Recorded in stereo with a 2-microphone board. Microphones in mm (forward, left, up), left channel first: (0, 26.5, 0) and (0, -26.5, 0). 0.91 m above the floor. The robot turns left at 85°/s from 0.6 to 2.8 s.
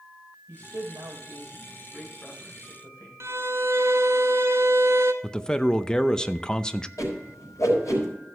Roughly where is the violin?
Right.